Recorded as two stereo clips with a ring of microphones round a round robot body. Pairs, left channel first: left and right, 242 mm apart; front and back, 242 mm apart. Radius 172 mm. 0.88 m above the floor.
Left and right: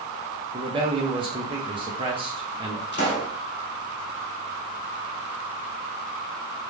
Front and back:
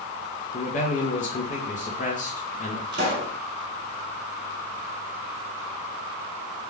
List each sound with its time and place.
0.5 s a man speaking: 35° right, 1.1 m
2.9 s a pop: 135° left, 2 m